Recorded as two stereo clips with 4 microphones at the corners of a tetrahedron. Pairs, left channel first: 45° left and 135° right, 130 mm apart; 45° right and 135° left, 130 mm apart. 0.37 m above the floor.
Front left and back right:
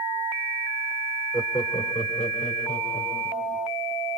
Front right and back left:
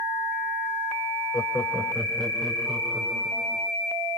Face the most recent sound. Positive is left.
turn(degrees=50)